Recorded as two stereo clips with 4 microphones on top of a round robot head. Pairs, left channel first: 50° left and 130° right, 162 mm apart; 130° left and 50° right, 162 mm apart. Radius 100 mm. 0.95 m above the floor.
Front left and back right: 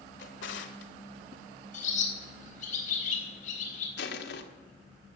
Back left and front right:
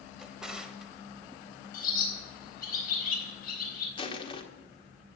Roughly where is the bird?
Left.